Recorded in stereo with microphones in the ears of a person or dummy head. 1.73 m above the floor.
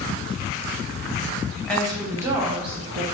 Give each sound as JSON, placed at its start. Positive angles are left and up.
{"t": 1.7, "sound": "a woman speaking", "side_deg": 5, "distance_m": 0.8}